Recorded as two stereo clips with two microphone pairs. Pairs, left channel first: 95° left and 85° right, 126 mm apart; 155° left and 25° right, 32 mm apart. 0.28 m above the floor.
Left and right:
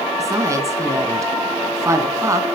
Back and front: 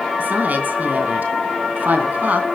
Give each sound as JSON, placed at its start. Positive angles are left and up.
{"t": 0.2, "sound": "a woman speaking", "azimuth_deg": -25, "distance_m": 2.5}